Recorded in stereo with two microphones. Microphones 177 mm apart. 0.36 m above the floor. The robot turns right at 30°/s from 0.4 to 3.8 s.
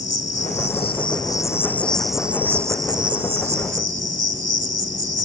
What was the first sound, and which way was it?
An insect, 130° left.